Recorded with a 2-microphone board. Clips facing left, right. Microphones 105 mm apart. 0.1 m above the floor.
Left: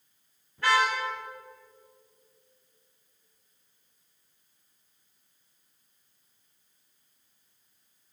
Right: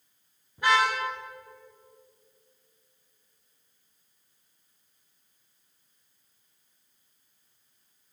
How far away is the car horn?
About 8.5 m.